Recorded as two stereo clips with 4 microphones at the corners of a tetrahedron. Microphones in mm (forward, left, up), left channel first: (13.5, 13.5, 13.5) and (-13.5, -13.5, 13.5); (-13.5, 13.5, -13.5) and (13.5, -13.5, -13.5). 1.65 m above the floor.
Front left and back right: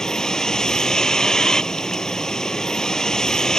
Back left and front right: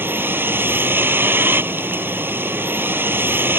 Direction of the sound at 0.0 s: 30° right.